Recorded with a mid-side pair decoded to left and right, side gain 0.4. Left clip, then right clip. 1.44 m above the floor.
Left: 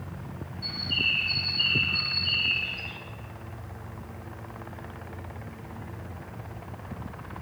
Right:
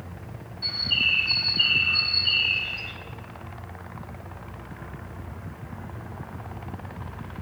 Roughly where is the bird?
Ahead right.